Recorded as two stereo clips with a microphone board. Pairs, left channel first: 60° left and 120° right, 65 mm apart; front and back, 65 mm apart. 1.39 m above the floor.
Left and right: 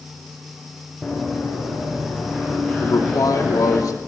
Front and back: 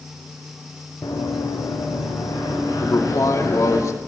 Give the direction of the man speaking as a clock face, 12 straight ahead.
11 o'clock.